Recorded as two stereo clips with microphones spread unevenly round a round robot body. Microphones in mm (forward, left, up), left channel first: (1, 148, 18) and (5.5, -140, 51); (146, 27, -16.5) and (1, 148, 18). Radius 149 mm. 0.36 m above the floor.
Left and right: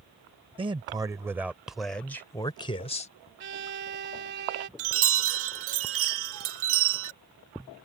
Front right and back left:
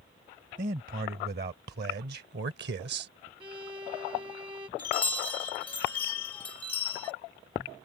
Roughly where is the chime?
Right.